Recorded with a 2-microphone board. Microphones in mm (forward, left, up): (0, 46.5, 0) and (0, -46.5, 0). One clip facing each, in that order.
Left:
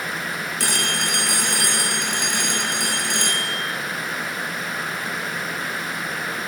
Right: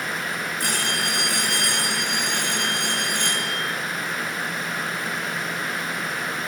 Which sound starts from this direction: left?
A phone ringing, at 0.6 s.